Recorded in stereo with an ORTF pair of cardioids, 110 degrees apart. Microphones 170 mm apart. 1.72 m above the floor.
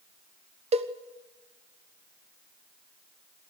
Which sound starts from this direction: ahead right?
A cowbell, at 0.7 s.